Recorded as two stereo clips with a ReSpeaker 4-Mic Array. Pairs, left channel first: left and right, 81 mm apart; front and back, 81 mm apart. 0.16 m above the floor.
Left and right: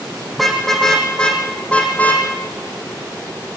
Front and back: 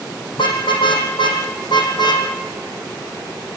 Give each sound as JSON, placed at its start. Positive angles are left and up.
{"t": 0.3, "sound": "a car horn", "azimuth_deg": 0, "distance_m": 5.0}